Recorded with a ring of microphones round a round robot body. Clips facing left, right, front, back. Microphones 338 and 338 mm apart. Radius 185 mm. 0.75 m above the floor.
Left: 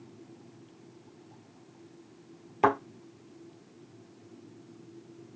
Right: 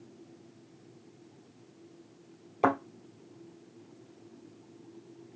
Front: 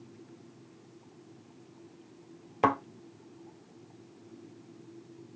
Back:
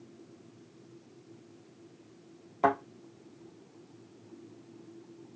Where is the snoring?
I don't hear snoring.